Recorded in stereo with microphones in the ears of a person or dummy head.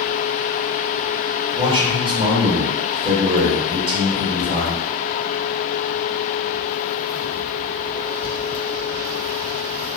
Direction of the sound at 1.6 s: 25° right (ahead or behind).